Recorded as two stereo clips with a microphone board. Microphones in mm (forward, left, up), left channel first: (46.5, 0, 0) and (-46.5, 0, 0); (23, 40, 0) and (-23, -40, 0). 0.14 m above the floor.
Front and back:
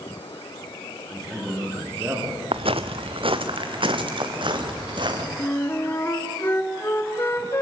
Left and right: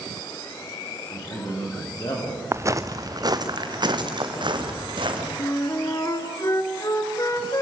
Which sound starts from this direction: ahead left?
A flute, at 5.4 s.